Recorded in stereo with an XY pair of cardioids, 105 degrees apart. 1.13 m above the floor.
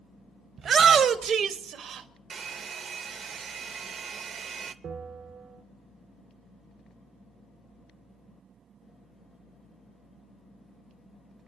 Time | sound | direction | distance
0.6 | a shout | 50° right | 1.0 m
2.3 | a hair dryer | 55° right | 0.7 m
4.8 | a bell | 55° right | 1.6 m